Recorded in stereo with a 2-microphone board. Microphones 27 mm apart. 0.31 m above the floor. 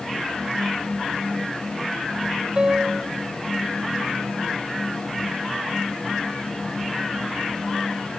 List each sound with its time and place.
2.6 s a piano: 35° right (ahead or behind), 1.9 m